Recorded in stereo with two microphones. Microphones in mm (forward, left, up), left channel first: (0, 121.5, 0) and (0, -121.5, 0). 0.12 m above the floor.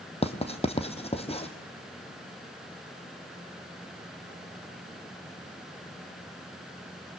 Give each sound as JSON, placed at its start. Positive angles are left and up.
{"t": 0.2, "sound": "writing", "side_deg": 25, "distance_m": 1.5}